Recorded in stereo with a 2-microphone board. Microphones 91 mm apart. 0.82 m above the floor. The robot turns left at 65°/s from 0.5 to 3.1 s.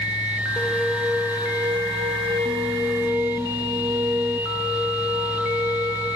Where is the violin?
20° left, 2 m; by 6.0 s 150° right, 2 m.